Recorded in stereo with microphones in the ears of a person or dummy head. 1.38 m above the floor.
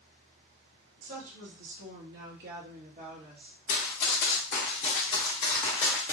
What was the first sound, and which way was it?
A woman speaking, 80° right.